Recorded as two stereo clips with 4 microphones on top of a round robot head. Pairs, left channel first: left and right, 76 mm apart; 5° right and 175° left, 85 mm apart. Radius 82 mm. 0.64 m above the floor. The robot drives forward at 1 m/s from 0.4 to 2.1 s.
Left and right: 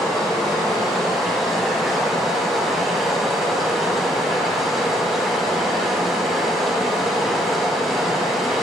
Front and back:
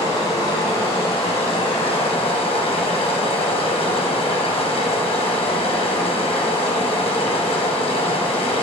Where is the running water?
Straight ahead, 4 m.